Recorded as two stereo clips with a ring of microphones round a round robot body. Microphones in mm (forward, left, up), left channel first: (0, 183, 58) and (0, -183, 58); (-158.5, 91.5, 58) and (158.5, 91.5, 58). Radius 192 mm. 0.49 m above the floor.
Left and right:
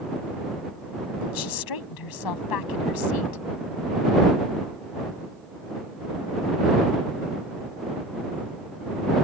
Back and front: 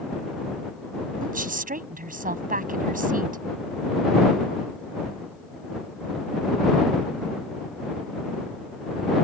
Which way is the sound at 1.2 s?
65° left.